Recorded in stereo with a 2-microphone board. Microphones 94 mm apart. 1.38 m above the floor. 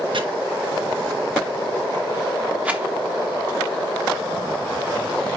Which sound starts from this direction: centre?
A rattle, at 2.6 s.